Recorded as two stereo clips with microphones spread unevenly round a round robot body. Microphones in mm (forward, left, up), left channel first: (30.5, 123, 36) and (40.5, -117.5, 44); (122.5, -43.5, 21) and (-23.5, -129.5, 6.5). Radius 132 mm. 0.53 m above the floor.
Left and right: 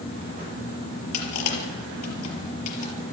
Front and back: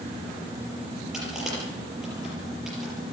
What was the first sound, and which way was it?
Crushing, 120° left.